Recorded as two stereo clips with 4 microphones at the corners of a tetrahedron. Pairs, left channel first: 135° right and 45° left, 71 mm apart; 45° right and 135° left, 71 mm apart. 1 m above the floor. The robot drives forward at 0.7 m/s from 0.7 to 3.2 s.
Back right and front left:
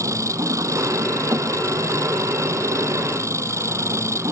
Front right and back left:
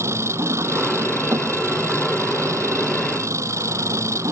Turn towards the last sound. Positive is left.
turn(degrees=90)